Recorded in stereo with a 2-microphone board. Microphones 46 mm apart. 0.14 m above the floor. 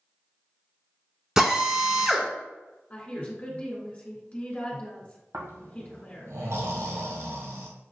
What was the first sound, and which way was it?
A drill, 10° right (ahead or behind).